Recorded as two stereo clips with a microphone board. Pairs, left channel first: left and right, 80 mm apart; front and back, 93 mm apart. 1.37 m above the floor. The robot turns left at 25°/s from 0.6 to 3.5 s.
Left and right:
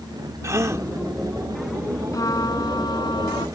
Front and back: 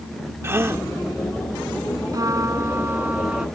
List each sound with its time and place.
0.4 s a gasp: 125° right; by 0.9 s 130° right
2.1 s a trumpet: 135° left; by 3.5 s 100° left